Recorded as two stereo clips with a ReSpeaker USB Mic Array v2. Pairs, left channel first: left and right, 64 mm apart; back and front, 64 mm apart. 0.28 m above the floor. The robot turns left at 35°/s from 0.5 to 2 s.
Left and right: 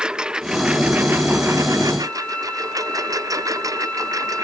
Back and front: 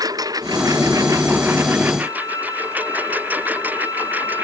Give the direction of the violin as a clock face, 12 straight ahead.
7 o'clock.